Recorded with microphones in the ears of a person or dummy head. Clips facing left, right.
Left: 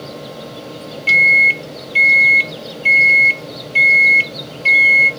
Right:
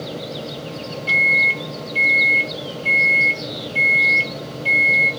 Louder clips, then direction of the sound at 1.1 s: Left 2 dB; 25° left (ahead or behind).